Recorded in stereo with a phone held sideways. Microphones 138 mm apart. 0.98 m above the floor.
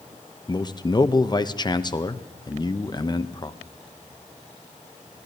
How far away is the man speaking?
About 0.6 m.